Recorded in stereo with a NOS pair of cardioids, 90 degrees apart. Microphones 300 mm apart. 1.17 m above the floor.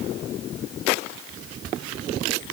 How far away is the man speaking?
I don't hear a man speaking.